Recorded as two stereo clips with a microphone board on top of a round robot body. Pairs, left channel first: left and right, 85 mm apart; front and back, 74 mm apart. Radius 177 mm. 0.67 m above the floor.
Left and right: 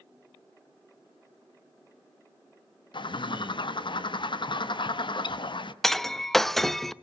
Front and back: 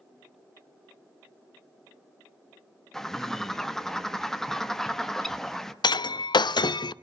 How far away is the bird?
About 1.1 m.